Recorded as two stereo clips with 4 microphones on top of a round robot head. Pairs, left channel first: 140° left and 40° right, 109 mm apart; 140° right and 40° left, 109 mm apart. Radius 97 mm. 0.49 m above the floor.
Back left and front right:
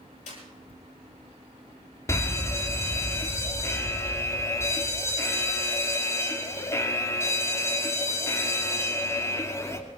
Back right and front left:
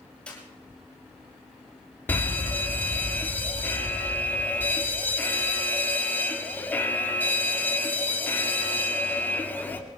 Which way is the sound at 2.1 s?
170° left.